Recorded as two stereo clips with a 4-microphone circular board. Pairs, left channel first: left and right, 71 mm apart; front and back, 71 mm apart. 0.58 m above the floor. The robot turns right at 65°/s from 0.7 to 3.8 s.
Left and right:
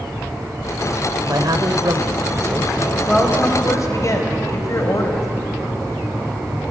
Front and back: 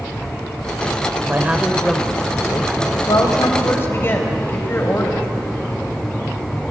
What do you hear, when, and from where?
1.3 s a man speaking: 125° right, 1.8 m; by 2.7 s 30° right, 1.8 m
3.1 s a woman speaking: 5° left, 3.5 m; by 5.3 s 55° left, 3.5 m